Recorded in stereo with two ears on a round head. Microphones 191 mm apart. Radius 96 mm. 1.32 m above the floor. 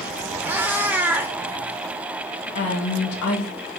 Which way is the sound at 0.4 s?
10° right (ahead or behind).